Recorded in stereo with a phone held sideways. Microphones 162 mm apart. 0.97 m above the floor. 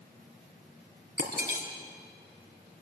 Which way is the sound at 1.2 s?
80° right.